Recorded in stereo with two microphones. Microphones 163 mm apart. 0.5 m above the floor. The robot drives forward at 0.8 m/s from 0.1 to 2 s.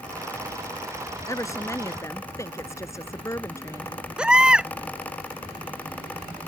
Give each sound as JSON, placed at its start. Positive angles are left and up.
{"t": 1.3, "sound": "a woman speaking", "side_deg": 20}
{"t": 4.2, "sound": "a baby crying", "side_deg": -5}